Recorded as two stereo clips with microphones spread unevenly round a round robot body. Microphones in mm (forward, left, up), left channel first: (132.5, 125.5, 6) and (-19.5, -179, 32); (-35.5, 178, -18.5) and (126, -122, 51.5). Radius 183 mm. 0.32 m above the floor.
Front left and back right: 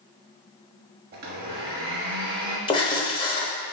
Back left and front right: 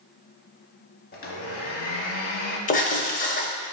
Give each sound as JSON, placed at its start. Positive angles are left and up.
{"t": 1.1, "sound": "a blender", "azimuth_deg": 180, "distance_m": 0.9}
{"t": 2.7, "sound": "writing", "azimuth_deg": 120, "distance_m": 1.0}